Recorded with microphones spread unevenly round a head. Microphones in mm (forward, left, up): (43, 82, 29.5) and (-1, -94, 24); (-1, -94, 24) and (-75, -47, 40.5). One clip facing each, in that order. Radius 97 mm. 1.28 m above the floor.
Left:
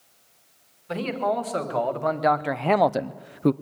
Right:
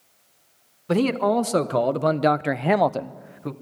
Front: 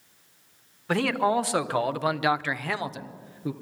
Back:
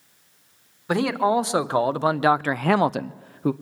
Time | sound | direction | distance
0.9 | a man speaking | 140° right | 2 m